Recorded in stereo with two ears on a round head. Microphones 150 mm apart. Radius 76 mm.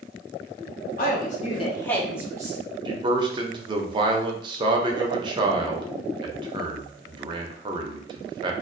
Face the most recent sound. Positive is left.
turn(degrees=-30)  # may be behind; listen again after turning